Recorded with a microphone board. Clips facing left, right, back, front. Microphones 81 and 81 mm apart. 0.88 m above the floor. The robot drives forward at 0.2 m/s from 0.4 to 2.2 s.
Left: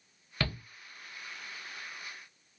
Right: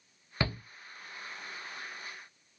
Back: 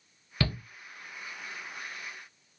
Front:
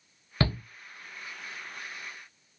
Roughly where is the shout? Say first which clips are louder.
Right 2 dB, front 3 dB; ahead right.